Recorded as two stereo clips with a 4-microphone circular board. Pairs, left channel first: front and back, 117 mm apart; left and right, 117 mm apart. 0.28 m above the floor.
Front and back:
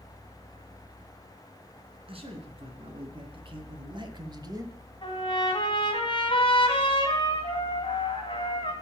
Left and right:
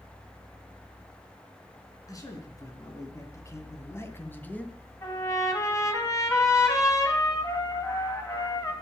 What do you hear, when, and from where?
2.1 s a man speaking: 150° left, 3 m; by 4.8 s 160° left, 1.2 m
5.0 s a trumpet: 35° left, 2.5 m